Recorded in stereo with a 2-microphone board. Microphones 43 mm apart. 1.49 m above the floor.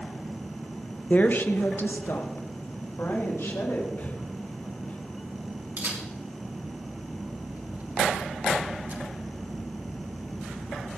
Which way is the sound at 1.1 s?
35° left (ahead or behind).